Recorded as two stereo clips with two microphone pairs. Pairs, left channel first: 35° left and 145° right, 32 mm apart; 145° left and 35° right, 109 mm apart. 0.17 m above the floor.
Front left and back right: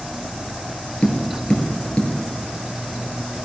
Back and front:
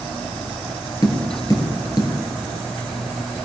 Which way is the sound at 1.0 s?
95° left.